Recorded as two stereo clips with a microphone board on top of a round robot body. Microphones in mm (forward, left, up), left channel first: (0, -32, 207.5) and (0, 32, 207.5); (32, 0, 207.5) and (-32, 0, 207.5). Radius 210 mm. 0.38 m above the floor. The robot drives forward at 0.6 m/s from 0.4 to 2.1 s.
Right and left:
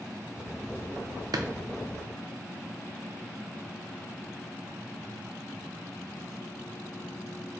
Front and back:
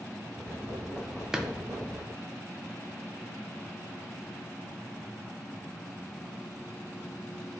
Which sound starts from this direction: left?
A drawer, at 1.3 s.